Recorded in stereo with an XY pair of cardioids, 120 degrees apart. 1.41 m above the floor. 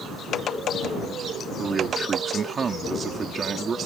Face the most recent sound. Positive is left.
turn(degrees=-35)